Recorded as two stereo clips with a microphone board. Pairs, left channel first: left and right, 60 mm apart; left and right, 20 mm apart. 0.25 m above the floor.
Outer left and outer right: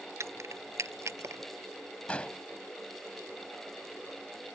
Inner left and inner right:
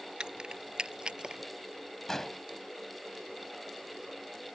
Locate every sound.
0.2 s keys jangling: 55° right (ahead or behind)
2.1 s an explosion: 20° left (ahead or behind)